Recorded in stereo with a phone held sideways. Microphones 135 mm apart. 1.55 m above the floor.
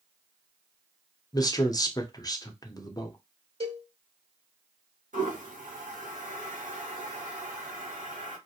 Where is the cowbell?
45° right (ahead or behind), 1.6 m.